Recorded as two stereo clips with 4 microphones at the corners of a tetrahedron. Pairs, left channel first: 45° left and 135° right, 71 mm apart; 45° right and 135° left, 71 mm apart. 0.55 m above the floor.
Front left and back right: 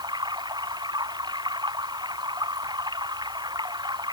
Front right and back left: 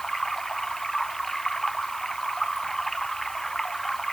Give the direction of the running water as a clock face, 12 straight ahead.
4 o'clock.